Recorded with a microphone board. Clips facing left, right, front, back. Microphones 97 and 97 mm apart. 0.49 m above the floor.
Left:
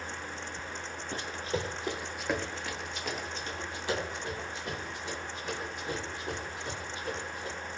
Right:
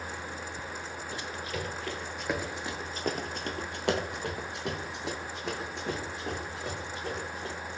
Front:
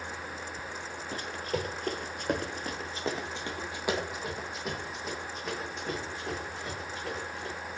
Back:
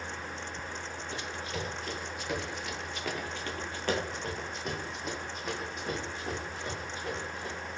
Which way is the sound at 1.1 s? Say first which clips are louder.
Left 4 dB, front 6 dB; 45° left.